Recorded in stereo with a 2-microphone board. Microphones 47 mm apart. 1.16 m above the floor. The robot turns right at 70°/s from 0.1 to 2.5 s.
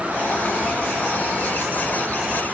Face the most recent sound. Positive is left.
No sound to turn to.